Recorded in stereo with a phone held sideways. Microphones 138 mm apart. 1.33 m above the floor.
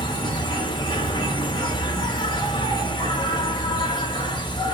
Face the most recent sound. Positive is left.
turn(degrees=35)  # may be behind; listen again after turning